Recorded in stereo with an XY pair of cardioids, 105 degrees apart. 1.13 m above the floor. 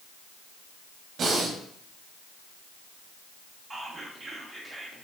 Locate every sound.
1.2 s breathing: 60° right, 1.0 m
3.7 s whispering: 20° right, 1.3 m